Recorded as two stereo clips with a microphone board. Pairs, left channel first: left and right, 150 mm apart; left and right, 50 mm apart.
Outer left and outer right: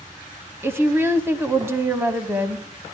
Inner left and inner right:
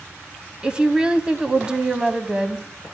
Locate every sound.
0.6 s a woman speaking: 15° right (ahead or behind), 1.0 m